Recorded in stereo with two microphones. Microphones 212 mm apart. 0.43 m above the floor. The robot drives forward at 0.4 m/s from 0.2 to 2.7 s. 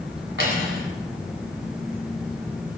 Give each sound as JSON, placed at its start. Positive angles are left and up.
{"t": 0.4, "sound": "cutlery clinking", "side_deg": -65, "distance_m": 2.0}